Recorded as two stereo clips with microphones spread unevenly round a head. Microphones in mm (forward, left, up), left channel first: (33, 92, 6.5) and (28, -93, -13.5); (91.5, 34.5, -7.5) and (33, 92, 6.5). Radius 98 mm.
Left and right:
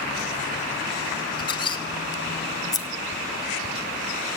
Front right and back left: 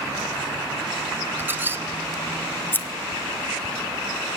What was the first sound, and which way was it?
A squeak, 120° left.